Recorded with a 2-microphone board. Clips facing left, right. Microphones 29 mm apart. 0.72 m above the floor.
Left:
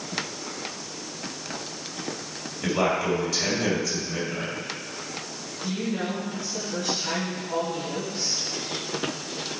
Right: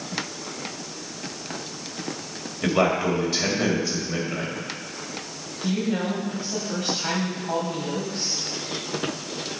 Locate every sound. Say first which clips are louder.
2.6 s a man speaking: right 3 dB; 25° right (ahead or behind), 3 m
5.6 s a woman speaking: right 4 dB; 80° right, 4 m